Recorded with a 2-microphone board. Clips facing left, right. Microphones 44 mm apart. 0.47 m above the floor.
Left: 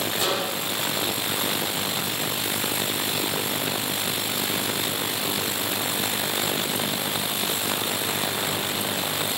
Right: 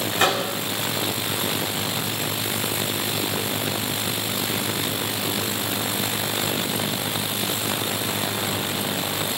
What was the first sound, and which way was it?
A microwave, 55° right (ahead or behind).